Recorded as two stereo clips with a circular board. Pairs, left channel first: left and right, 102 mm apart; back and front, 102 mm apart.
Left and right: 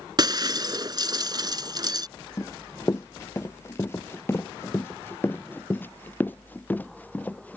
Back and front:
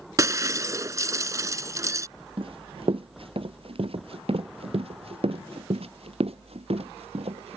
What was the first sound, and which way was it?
Breaking glass, 55° right.